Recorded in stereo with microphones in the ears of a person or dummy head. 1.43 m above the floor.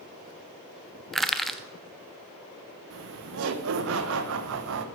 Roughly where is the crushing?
Centre.